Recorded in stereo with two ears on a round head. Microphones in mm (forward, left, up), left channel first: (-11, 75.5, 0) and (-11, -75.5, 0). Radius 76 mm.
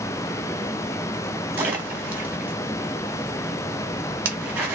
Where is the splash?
10° right (ahead or behind), 1.1 m.